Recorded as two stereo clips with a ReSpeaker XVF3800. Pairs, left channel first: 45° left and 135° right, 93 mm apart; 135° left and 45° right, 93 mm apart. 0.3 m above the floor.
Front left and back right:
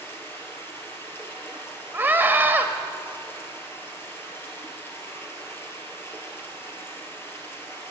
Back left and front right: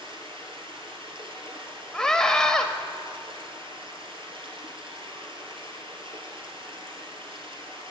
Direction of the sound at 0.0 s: 20° right.